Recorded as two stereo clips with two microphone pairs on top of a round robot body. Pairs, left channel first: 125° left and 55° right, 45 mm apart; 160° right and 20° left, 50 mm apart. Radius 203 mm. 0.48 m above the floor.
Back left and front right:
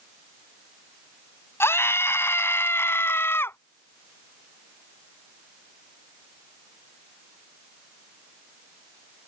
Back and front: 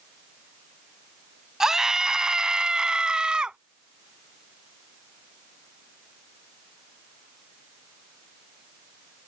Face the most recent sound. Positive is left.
turn(degrees=90)